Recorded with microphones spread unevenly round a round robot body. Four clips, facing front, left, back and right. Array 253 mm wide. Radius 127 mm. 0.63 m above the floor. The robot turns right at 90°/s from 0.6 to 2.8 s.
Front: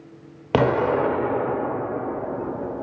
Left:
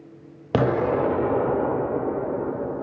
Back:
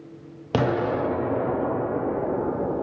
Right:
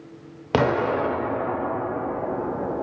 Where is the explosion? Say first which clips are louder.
Even, front 4 dB; 5° left, 0.6 m; by 2.8 s 155° right, 0.6 m.